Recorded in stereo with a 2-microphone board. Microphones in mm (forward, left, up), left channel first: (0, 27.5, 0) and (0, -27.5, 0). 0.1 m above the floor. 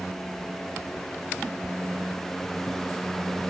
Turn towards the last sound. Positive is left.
No sound to turn to.